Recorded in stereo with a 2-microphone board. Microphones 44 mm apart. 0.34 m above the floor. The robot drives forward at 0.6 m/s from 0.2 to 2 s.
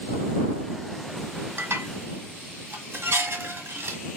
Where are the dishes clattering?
70° right (ahead or behind), 1.4 m.